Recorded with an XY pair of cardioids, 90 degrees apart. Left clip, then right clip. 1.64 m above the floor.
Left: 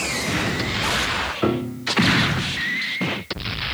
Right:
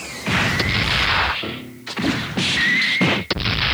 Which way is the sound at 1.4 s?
70° left.